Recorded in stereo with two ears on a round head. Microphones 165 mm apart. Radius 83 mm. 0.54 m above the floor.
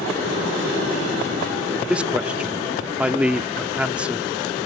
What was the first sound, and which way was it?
A man speaking, 5° right (ahead or behind).